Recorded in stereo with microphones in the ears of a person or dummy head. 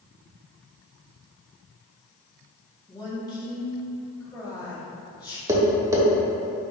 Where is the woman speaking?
25° left (ahead or behind), 1.8 m.